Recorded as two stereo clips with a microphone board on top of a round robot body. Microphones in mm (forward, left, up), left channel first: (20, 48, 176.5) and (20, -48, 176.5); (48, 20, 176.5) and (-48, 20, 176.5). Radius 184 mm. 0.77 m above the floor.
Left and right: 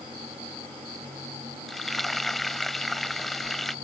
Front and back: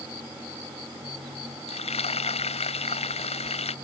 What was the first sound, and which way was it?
Frying, straight ahead.